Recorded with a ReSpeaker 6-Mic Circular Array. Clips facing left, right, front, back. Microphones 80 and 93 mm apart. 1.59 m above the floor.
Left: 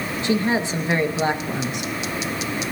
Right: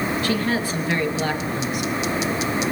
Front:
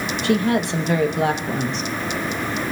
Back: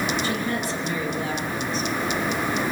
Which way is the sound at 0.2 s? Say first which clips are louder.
Left 1 dB, front 7 dB; 20° left.